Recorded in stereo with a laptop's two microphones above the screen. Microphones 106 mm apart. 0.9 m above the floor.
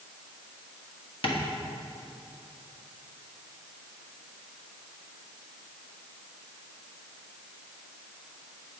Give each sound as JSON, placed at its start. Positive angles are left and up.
{"t": 1.2, "sound": "tapping", "side_deg": 55, "distance_m": 1.4}